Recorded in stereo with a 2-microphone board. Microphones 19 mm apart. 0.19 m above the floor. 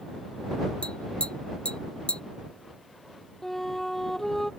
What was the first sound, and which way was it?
Tapping, 70° left (ahead or behind).